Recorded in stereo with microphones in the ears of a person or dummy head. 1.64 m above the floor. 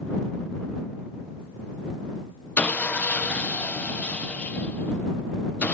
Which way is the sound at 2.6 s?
5° left (ahead or behind).